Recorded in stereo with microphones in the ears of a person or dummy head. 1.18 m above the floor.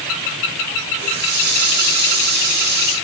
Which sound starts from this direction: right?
A running tap, at 1.0 s.